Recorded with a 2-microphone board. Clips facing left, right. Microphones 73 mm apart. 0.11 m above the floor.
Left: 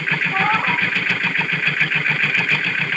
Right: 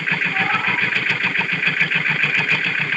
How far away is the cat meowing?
About 3 m.